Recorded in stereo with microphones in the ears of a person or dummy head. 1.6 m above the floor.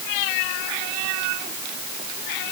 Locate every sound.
Only background noise.